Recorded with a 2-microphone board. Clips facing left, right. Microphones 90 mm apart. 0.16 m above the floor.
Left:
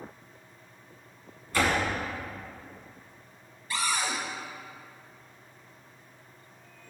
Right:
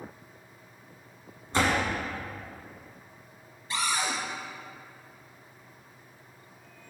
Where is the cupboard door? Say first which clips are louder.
Even; 25° right (ahead or behind), 1.5 m.